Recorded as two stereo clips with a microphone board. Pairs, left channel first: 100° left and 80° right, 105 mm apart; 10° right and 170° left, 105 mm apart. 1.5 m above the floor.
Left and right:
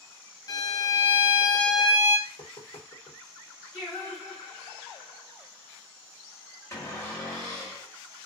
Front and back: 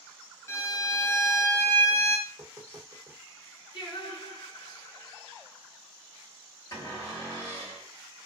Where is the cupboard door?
40° left, 2 m.